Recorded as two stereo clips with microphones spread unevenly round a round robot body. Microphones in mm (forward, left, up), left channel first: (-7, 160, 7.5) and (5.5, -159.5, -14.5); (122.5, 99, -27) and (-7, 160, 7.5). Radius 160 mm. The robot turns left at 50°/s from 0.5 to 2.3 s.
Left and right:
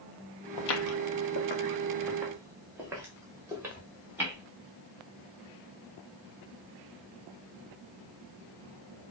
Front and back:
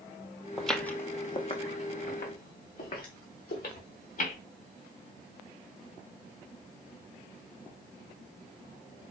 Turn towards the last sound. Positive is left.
turn(degrees=-5)